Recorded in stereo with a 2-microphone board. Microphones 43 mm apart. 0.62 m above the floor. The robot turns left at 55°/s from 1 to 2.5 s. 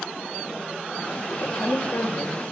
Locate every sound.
1.4 s a woman speaking: 105° left, 2.5 m; by 2.4 s 50° left, 2.5 m